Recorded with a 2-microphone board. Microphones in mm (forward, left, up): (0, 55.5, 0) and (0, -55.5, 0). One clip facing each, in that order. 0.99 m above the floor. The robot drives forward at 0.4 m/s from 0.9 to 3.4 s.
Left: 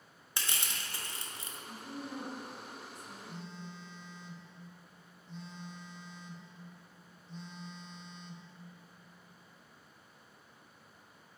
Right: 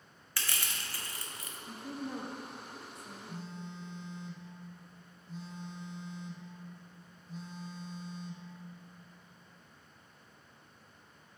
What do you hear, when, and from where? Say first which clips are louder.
0.4 s crushing: even; 20° left (ahead or behind), 0.8 m; by 1.6 s 30° left (ahead or behind), 0.5 m
1.7 s a woman speaking: right 4 dB; 60° right (ahead or behind), 1.0 m
3.3 s a phone buzzing: right 4 dB; 5° right (ahead or behind), 0.7 m